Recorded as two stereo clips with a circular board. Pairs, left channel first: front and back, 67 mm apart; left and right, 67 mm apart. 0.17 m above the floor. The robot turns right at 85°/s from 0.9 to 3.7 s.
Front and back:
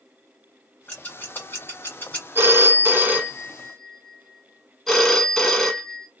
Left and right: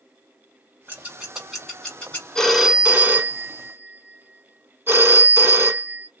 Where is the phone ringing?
160° left, 0.8 m; by 6.1 s 85° right, 0.8 m.